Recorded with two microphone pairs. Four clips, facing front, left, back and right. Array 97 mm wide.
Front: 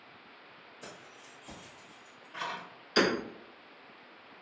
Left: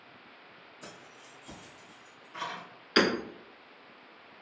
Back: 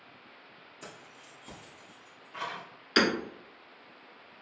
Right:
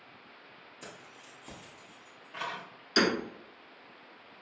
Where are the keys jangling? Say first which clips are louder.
Even, back 1 dB; 135° right, 1.8 m; by 2.6 s 95° right, 2 m.